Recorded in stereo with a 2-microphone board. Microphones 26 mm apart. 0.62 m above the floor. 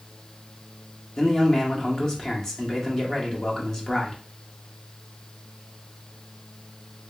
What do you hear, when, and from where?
1.2 s a man speaking: 20° left (ahead or behind), 1.1 m